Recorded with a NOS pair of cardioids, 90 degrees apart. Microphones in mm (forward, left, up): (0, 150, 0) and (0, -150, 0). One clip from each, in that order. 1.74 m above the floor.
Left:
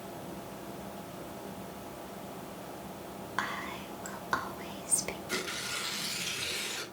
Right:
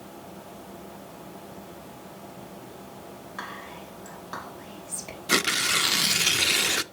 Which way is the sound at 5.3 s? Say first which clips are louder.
Right 15 dB; 70° right.